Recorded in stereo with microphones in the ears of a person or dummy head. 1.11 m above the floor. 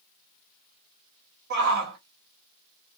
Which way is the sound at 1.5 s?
55° right (ahead or behind).